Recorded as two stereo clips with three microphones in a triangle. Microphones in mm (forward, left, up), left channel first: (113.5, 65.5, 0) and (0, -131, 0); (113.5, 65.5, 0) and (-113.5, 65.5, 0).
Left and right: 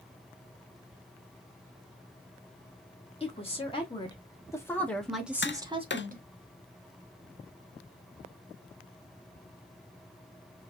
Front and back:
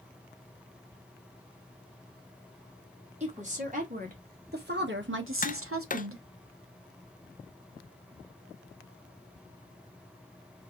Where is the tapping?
45° left, 0.5 m.